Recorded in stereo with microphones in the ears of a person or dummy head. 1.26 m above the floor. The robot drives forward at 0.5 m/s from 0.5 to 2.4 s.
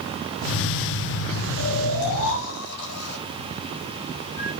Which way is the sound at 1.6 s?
85° left.